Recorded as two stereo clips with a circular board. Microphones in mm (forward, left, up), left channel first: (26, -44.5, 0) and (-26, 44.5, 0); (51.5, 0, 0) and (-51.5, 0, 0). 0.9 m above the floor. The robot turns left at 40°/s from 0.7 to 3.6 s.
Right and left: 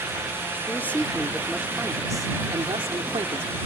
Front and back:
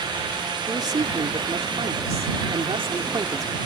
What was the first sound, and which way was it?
A man speaking, 125° right.